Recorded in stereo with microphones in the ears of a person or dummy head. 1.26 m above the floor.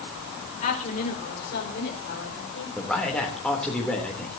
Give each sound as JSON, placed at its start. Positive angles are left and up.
{"t": 0.6, "sound": "a woman speaking", "side_deg": 40, "distance_m": 5.0}
{"t": 2.8, "sound": "a man speaking", "side_deg": 5, "distance_m": 3.0}